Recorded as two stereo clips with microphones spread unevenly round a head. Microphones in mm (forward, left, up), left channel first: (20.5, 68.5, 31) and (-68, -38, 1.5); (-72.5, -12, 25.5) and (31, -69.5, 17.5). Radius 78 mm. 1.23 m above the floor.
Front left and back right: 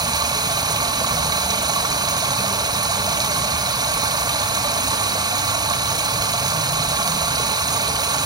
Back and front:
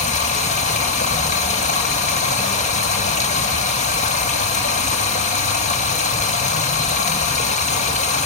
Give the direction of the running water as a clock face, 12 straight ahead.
6 o'clock.